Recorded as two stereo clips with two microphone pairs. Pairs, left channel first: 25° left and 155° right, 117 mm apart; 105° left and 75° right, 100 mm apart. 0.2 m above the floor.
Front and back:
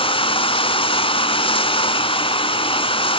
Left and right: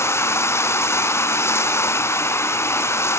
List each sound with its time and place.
0.0 s running water: 50° left, 1.2 m